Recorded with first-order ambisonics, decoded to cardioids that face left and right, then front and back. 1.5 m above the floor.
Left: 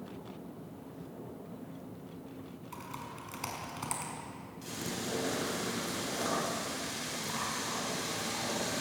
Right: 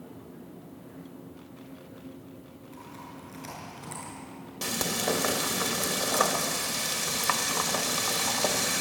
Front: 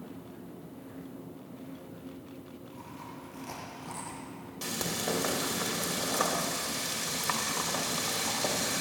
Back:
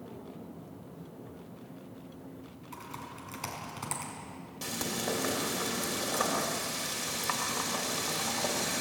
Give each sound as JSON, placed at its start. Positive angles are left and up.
{"t": 2.7, "sound": "typing on a keyboard", "azimuth_deg": 140, "distance_m": 5.5}
{"t": 4.6, "sound": "frying", "azimuth_deg": -80, "distance_m": 2.5}